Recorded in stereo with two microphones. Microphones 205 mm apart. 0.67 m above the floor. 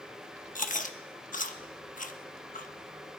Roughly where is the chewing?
Left.